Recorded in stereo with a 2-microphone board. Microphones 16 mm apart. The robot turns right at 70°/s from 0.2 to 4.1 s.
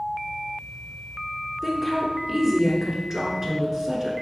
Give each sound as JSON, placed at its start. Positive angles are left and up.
{"t": 1.6, "sound": "a woman speaking", "side_deg": 20, "distance_m": 1.1}